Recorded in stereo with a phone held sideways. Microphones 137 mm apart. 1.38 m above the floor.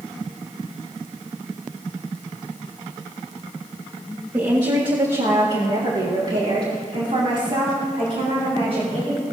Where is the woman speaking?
25° right (ahead or behind), 1.8 m; by 9.2 s 75° right (ahead or behind), 5 m.